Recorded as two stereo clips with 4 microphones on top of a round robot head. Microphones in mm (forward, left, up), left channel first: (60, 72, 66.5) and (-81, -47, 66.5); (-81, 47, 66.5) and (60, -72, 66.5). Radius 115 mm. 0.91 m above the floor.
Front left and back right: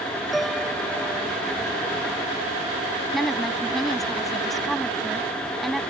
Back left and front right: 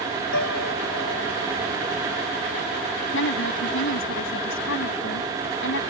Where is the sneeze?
I don't hear a sneeze.